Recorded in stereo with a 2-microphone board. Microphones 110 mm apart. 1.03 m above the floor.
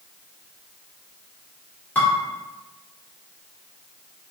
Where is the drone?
I don't hear a drone.